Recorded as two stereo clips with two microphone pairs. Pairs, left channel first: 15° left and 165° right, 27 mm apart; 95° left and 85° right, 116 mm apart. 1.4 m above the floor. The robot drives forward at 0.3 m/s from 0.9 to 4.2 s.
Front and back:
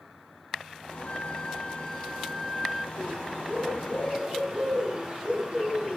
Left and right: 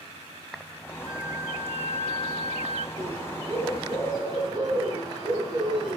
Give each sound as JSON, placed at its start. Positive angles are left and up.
{"t": 1.1, "sound": "a flute", "azimuth_deg": -45, "distance_m": 0.7}
{"t": 3.0, "sound": "a bird", "azimuth_deg": -130, "distance_m": 2.0}